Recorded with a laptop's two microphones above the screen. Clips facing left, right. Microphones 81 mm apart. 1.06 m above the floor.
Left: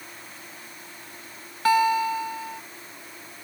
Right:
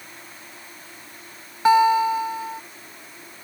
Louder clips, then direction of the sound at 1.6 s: Right 5 dB; 20° right (ahead or behind).